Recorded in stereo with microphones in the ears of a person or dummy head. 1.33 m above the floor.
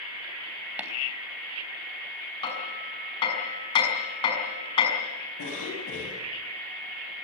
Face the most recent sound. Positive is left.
turn(degrees=80)